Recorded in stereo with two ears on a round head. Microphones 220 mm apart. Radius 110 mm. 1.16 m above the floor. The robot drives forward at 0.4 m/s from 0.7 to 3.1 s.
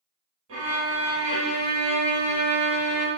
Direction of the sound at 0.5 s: 60° right (ahead or behind).